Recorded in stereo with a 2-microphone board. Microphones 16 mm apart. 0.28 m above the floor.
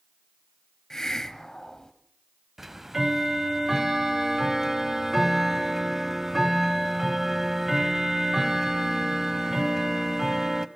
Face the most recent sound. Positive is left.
turn(degrees=-15)  # may be behind; listen again after turning